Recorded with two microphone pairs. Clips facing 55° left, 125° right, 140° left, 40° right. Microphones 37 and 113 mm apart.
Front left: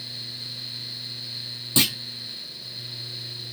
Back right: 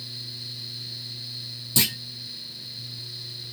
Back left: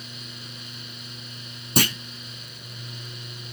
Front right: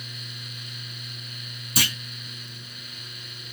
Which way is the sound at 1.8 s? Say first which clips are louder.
Front left 3 dB, back left 7 dB; 105° left.